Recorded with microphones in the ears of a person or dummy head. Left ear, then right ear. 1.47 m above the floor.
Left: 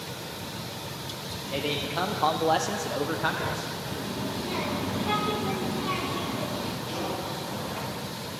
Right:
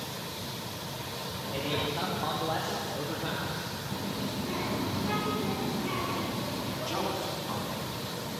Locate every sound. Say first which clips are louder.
1.5 s a man speaking: left 3 dB; 40° left (ahead or behind), 1.0 m
3.9 s a child speaking: left 2 dB; 40° left (ahead or behind), 2.5 m
6.9 s a man speaking: right 3 dB; 65° right (ahead or behind), 4.5 m